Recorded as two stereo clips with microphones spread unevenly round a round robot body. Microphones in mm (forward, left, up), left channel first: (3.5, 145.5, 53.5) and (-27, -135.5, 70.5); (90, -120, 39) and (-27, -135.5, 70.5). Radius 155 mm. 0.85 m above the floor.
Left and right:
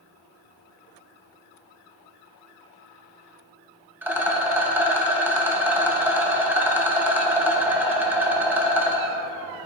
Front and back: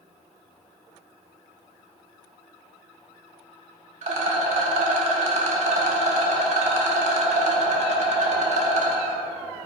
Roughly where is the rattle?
Behind.